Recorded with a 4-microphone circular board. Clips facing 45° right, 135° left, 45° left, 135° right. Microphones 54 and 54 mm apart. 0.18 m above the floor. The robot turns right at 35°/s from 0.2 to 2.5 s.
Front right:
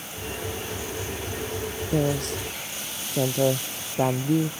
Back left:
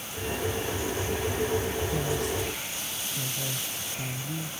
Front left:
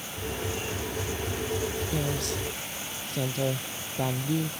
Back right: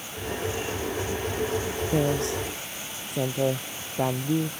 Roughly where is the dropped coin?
I don't hear a dropped coin.